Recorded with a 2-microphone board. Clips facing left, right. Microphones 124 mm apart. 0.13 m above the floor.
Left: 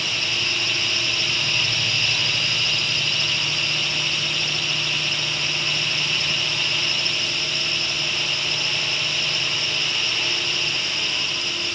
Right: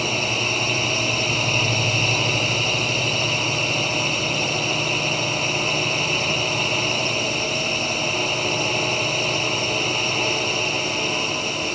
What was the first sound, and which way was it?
A drone, 40° right (ahead or behind).